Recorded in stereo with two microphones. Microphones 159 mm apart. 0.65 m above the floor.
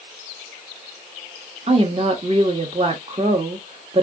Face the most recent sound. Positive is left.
turn(degrees=-35)  # may be behind; listen again after turning